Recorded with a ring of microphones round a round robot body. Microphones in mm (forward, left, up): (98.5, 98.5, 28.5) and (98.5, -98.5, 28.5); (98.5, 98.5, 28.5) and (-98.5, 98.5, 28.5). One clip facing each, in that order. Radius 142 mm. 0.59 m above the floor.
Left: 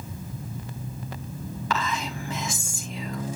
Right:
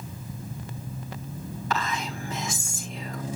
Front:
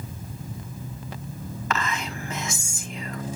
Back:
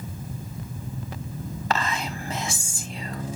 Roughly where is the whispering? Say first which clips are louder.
Left 1 dB, back 2 dB; behind left.